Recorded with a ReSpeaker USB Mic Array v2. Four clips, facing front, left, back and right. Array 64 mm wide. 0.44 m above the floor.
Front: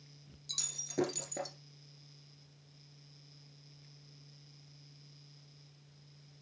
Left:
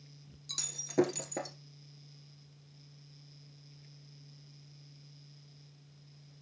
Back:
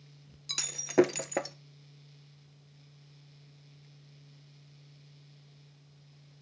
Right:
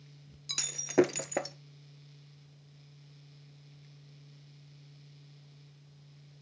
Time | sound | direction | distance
0.5 | breaking glass | 140° right | 0.8 m